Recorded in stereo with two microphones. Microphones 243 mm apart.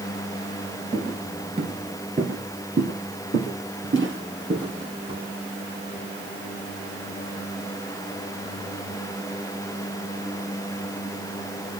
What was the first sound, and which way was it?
Footsteps, 15° right (ahead or behind).